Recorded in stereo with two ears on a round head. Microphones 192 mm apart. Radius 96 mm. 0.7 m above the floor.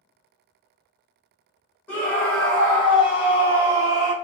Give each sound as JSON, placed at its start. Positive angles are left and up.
{"t": 1.9, "sound": "a scream", "side_deg": 5, "distance_m": 1.1}